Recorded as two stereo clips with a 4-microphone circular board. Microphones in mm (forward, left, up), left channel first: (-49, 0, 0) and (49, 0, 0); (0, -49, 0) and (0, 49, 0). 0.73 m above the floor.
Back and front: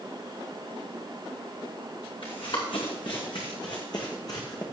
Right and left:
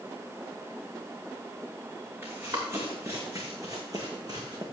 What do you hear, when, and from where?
2.2 s running footsteps: 155° left, 3 m; by 4.6 s 130° left, 2.5 m